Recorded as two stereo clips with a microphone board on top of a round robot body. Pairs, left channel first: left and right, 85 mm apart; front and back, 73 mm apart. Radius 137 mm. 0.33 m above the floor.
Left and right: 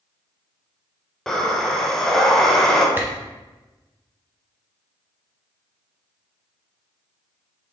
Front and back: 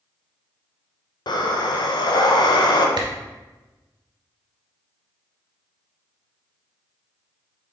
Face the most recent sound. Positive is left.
turn(degrees=-160)